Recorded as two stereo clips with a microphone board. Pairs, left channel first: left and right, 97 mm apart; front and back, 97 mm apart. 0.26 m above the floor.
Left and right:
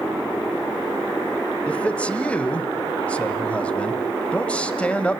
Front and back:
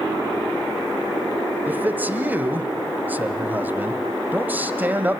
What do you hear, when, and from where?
1.7 s a man speaking: 145° left, 1.4 m